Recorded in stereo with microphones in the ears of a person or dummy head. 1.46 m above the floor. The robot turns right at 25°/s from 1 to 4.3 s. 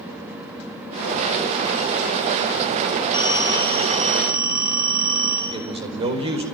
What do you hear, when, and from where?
3.1 s a phone ringing: 15° right (ahead or behind), 9.5 m; by 5.4 s 45° right (ahead or behind), 9.5 m
5.5 s a man speaking: 35° right (ahead or behind), 4.5 m